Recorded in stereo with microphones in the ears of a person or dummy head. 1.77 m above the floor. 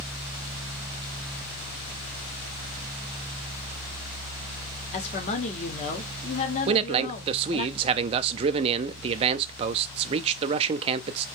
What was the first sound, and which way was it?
A woman speaking, 45° left (ahead or behind).